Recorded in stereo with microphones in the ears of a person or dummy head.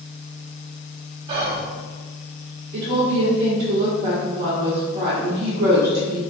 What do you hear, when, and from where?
1.3 s whispering: 30° right (ahead or behind), 0.6 m
2.7 s a woman speaking: 35° right (ahead or behind), 0.7 m